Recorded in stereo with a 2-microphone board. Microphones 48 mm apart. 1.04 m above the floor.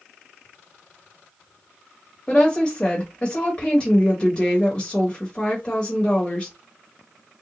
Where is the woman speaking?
25° left (ahead or behind), 1.2 m.